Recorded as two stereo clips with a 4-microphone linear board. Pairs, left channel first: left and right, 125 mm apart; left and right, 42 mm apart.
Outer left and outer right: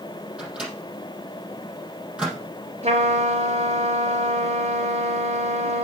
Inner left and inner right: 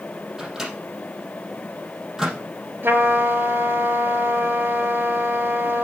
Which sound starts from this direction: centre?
A microwave, at 0.4 s.